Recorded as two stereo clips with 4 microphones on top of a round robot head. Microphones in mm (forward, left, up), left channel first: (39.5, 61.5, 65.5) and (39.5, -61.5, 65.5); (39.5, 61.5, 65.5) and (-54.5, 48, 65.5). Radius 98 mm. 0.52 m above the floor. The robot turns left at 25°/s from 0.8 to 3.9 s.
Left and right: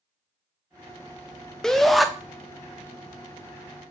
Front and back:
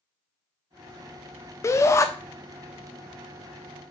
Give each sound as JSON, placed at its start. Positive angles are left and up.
{"t": 1.6, "sound": "a shout", "azimuth_deg": 5, "distance_m": 0.7}